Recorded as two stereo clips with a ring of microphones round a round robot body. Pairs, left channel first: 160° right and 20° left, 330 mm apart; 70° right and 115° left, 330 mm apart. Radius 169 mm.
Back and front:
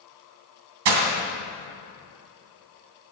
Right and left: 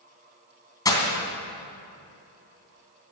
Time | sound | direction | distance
0.8 | breaking glass | 10° left | 2.5 m